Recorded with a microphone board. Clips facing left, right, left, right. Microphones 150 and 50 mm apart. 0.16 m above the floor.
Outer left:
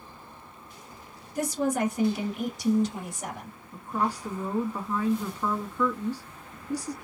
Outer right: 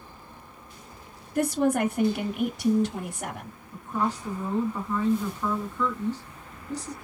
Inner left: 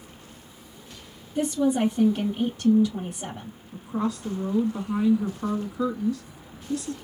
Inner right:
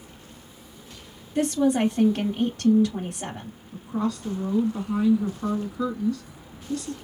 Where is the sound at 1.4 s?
60° right (ahead or behind), 2.5 m.